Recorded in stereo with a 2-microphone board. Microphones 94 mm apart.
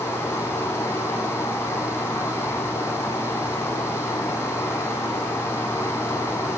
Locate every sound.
0.0 s running water: 20° left (ahead or behind), 3 m